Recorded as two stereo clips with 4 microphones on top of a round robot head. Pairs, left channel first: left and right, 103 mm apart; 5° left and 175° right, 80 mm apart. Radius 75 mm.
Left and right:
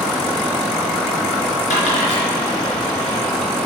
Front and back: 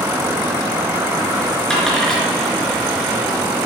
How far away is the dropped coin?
About 3.5 m.